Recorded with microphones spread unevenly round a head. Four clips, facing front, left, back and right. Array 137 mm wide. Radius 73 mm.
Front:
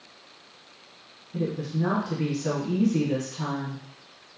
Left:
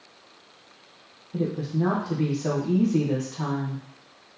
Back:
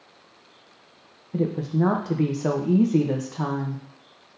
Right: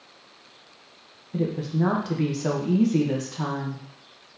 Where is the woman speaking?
170° right, 0.7 m.